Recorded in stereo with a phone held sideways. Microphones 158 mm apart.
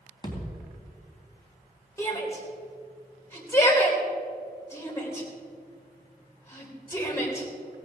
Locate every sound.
0.2 s a thud: 30° left (ahead or behind), 3.5 m
2.0 s a shout: 15° left (ahead or behind), 4 m